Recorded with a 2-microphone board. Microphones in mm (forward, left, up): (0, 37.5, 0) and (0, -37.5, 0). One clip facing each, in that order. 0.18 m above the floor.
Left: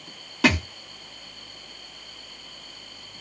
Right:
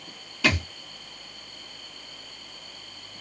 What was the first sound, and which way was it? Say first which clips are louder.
A thud: left 4 dB; 75° left (ahead or behind).